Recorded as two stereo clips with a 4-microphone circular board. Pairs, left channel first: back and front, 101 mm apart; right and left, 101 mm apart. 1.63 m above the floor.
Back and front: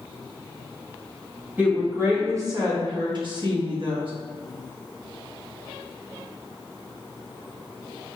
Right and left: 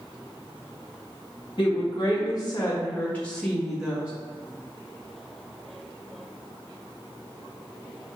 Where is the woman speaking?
75° right, 1.1 m; by 4.1 s 10° left, 1.1 m.